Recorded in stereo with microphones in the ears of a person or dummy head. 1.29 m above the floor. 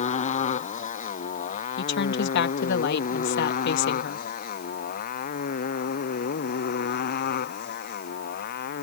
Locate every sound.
0.0 s a motorcycle: 40° left (ahead or behind); by 8.8 s 55° left (ahead or behind)
1.8 s a woman speaking: 65° left (ahead or behind)